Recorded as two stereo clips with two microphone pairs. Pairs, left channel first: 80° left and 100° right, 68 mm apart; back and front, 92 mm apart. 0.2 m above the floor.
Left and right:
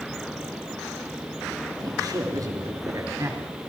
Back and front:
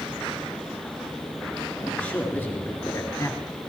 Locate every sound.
1.8 s a man speaking: 105° right, 3 m; by 3.5 s 135° right, 2.5 m